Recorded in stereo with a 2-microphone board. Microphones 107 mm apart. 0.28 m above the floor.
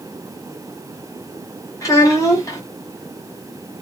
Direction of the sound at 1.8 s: 35° left (ahead or behind).